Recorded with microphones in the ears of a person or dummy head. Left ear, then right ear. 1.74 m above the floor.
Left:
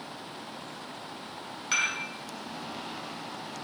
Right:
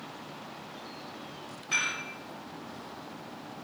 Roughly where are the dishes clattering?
Left.